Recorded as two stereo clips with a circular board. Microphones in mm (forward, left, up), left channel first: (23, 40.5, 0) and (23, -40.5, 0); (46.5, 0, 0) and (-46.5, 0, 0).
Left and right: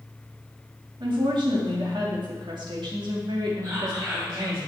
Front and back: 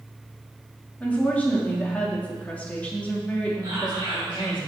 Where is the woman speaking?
75° right, 2.5 m.